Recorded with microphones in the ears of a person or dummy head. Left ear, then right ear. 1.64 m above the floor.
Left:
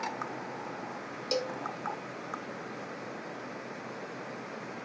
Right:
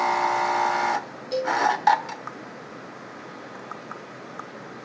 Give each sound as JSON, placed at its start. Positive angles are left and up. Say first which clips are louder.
{"t": 1.3, "sound": "a cowbell", "louder": "right 8 dB", "side_deg": 85, "distance_m": 2.5}